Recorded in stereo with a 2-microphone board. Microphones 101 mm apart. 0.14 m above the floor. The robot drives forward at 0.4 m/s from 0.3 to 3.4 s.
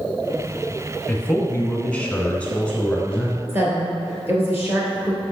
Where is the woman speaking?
25° right (ahead or behind), 2.5 m.